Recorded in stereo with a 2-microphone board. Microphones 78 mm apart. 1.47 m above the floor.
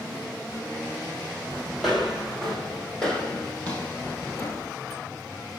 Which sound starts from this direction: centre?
Footsteps, at 1.8 s.